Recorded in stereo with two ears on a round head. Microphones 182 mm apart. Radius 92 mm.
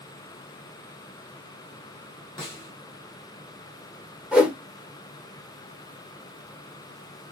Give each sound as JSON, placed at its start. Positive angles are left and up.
{"t": 2.4, "sound": "a snare drum", "side_deg": 15, "distance_m": 1.6}
{"t": 4.3, "sound": "a whoosh", "side_deg": -5, "distance_m": 1.3}